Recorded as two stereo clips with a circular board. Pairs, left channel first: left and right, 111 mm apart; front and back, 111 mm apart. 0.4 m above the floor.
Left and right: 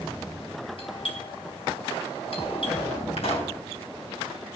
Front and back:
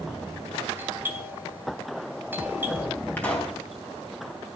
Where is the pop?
70° left, 3.5 m.